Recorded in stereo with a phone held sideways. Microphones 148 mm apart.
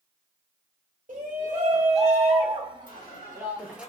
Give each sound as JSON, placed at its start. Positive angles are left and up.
{"t": 1.1, "sound": "a shout", "side_deg": -65, "distance_m": 1.5}
{"t": 2.9, "sound": "a squeak", "side_deg": 60, "distance_m": 1.0}